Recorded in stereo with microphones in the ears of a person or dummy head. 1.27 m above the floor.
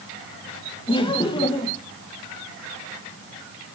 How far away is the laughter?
About 1.4 m.